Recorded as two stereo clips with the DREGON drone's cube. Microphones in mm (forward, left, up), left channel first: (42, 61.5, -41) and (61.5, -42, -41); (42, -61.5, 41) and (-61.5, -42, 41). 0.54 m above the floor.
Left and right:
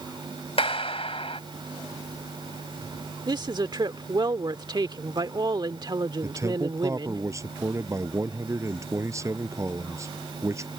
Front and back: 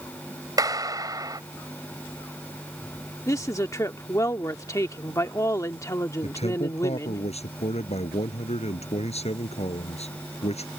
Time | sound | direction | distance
0.6 | a clap | 120° left | ?
3.3 | a woman speaking | 60° right | ?
6.2 | a man speaking | 20° right | ?